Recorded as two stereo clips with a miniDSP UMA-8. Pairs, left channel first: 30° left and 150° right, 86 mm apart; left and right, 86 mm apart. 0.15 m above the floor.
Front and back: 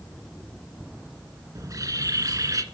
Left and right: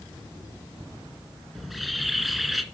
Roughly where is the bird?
Behind.